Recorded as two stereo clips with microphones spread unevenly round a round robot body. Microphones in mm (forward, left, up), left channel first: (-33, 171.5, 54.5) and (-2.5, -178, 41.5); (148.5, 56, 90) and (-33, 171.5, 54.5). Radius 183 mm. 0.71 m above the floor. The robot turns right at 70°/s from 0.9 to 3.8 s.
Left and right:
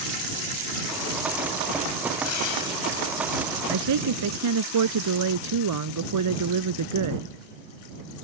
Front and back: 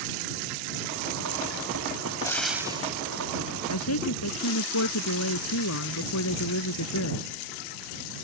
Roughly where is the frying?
Ahead left.